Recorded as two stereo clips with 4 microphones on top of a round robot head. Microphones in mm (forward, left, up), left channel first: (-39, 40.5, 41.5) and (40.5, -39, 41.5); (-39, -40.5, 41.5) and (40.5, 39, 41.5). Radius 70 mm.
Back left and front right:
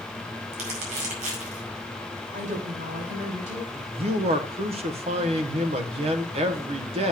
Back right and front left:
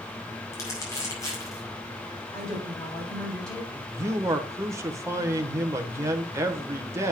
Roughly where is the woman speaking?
Ahead right.